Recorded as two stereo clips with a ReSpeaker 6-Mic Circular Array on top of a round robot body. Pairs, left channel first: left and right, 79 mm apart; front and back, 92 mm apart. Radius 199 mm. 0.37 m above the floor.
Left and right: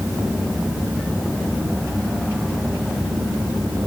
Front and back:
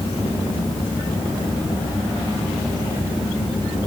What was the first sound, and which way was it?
Only background noise.